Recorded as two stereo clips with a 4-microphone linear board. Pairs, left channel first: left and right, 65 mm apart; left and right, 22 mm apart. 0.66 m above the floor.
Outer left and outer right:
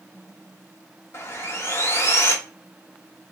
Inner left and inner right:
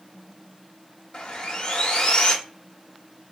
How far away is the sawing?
About 0.6 m.